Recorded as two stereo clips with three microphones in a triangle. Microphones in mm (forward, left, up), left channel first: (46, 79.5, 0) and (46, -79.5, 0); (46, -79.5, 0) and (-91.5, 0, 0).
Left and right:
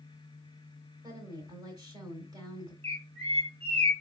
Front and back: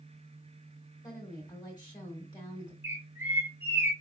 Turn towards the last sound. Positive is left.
turn(degrees=-140)